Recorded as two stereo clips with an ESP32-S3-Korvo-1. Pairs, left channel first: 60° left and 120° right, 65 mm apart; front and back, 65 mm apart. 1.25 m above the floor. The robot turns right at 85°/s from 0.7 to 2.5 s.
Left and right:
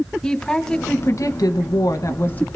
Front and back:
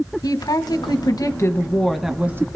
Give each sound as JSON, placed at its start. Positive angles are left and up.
{"t": 0.2, "sound": "a woman speaking", "azimuth_deg": -20, "distance_m": 1.0}